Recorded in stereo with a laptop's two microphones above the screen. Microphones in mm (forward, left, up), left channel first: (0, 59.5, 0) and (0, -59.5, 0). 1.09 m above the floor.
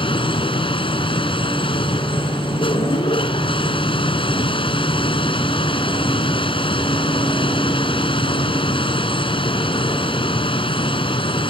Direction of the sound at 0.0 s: 45° left (ahead or behind).